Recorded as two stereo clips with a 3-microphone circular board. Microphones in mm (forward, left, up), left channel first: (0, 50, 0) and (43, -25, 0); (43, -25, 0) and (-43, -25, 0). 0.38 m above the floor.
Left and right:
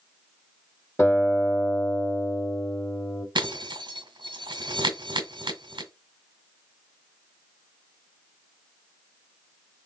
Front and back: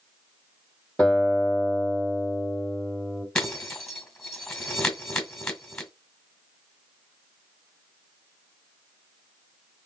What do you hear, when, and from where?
1.0 s a guitar: 75° left, 1.2 m
3.4 s breaking glass: 80° right, 1.7 m